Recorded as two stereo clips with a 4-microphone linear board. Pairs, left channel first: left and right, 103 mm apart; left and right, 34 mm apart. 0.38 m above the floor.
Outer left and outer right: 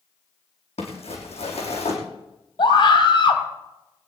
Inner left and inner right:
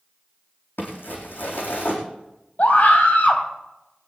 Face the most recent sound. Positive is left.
turn(degrees=55)  # may be behind; listen again after turning